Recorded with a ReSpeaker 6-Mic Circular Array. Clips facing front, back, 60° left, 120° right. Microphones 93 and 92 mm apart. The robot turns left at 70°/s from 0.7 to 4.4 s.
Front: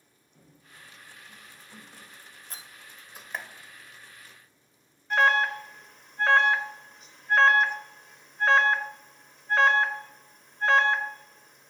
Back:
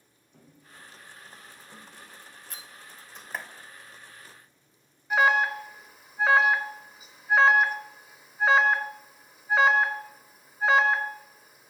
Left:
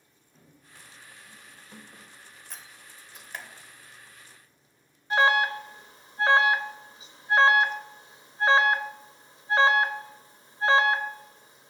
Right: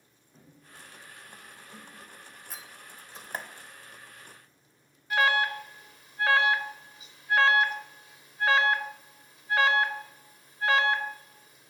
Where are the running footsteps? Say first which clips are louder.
Back 2 dB, right 2 dB; 165° left, 4.5 m; by 2.1 s 75° left, 5 m.